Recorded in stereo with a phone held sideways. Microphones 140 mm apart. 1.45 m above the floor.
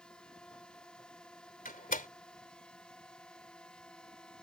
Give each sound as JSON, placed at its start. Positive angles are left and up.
{"t": 0.0, "sound": "a drone", "side_deg": 5}
{"t": 1.6, "sound": "a door slam", "side_deg": 80}